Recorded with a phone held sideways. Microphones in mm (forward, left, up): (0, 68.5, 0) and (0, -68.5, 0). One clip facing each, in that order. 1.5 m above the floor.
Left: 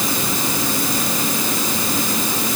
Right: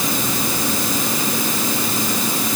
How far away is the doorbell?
No doorbell in this recording.